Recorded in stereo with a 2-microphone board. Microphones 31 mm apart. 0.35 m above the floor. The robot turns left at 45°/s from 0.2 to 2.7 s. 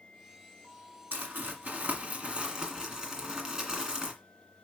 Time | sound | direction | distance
1.1 | crumpling | 85° right | 2.0 m